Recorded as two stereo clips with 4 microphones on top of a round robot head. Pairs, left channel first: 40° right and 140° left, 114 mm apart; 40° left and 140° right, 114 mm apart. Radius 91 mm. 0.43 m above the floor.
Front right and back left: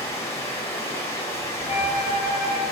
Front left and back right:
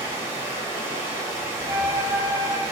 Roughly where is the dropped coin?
I don't hear a dropped coin.